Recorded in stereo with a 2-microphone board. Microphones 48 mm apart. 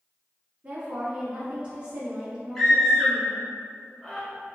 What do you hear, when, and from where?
0.6 s a woman speaking: 25° right (ahead or behind), 1.1 m
2.5 s a scream: 5° left (ahead or behind), 1.1 m